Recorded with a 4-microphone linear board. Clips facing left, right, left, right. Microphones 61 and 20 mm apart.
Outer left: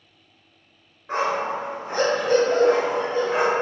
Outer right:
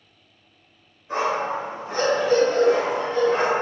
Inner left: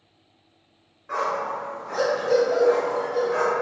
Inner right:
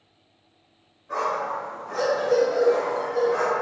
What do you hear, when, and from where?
1.1 s a dog barking: 70° left (ahead or behind), 1.4 m; by 3.5 s 5° left (ahead or behind), 0.5 m